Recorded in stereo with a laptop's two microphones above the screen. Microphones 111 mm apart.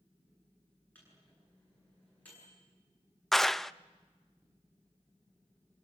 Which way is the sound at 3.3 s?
Centre (ahead or behind).